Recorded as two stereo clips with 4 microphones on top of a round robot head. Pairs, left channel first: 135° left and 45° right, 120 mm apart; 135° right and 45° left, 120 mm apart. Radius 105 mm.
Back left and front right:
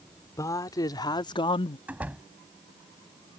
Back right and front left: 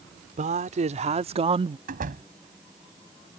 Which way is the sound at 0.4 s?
70° left.